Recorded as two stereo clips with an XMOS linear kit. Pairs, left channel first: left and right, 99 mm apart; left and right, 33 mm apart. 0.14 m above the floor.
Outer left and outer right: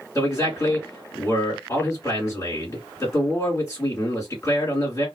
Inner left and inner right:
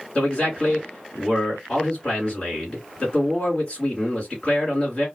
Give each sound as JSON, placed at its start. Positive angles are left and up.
{"t": 0.1, "sound": "a man speaking", "side_deg": 35, "distance_m": 2.0}